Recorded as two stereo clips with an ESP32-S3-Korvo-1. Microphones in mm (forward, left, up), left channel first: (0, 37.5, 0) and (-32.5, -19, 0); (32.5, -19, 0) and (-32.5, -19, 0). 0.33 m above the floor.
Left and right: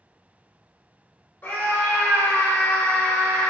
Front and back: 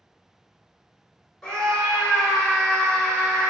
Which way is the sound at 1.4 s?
65° left.